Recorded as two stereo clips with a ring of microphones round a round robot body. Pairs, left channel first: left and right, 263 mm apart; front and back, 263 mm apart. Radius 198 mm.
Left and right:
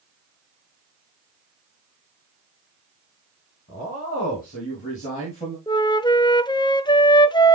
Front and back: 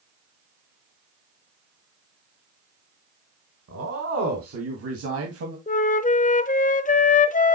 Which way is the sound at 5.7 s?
30° left.